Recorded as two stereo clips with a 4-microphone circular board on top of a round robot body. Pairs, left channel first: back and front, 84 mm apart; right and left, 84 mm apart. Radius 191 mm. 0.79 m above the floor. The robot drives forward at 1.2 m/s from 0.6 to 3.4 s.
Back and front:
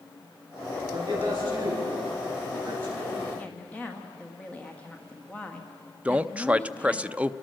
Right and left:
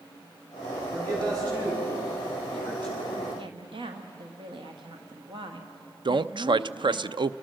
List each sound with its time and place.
0.9 s a man speaking: 50° left, 9.5 m; by 3.3 s 65° left, 8 m
3.4 s a woman speaking: 105° left, 1.5 m
6.0 s a man speaking: 75° left, 0.7 m